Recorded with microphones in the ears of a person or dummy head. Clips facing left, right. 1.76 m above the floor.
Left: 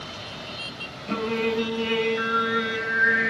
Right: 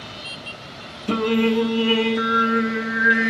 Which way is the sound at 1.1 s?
70° right (ahead or behind).